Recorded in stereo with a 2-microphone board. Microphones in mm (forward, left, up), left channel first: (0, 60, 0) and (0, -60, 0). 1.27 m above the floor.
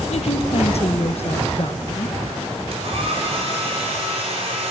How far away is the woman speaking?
About 1.5 m.